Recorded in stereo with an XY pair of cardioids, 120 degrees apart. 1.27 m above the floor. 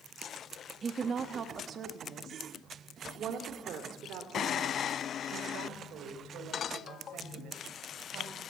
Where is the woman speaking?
35° right, 1.6 m; by 8.4 s 70° right, 6 m.